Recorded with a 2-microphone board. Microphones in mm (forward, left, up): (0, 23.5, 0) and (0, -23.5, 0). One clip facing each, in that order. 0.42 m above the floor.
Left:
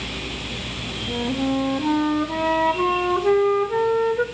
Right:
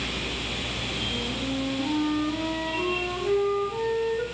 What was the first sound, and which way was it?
A flute, 45° left (ahead or behind).